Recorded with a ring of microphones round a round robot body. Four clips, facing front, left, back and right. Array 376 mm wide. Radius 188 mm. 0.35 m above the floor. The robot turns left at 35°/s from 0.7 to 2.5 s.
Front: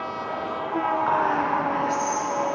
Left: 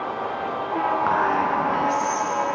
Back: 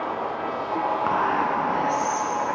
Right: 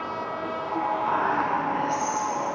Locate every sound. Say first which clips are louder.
1.1 s whispering: left 3 dB, even; 140° left, 4 m; by 2.3 s 95° left, 4 m